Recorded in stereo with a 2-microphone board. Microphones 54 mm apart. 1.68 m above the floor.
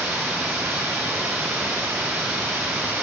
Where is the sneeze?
I don't hear a sneeze.